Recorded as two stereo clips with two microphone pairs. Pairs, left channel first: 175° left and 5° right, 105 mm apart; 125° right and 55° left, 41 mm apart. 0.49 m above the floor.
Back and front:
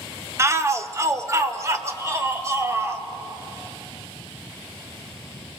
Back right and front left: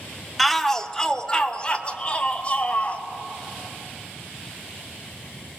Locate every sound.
0.4 s a shout: 40° right, 0.8 m; by 3.0 s 70° right, 1.9 m